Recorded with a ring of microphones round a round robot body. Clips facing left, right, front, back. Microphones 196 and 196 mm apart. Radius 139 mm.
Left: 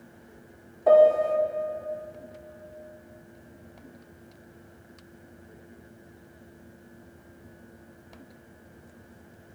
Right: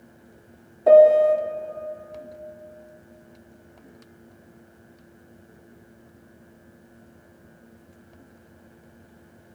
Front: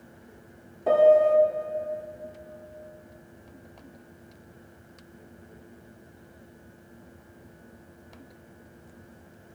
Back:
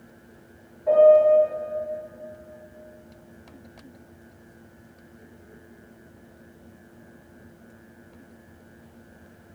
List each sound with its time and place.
0.9 s a piano: 30° right, 0.9 m